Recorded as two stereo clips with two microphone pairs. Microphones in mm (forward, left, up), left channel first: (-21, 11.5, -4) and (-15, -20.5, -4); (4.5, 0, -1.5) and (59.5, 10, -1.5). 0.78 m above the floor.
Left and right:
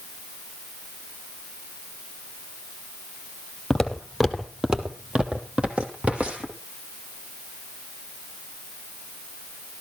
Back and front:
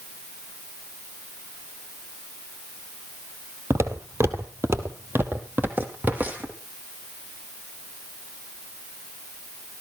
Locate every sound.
3.7 s footsteps: 20° left, 1.4 m; by 6.5 s 50° right, 2.5 m